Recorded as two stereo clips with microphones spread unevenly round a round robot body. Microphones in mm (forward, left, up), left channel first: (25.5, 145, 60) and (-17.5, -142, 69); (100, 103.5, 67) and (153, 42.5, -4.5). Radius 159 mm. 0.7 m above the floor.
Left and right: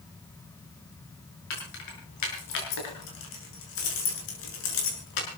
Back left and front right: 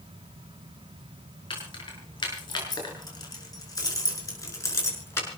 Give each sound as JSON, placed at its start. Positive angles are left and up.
{"t": 1.5, "sound": "keys jangling", "azimuth_deg": 115, "distance_m": 7.5}